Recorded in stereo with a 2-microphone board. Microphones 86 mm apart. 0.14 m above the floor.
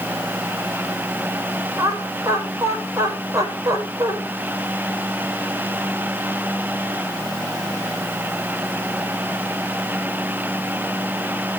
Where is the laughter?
45° right (ahead or behind), 5 m.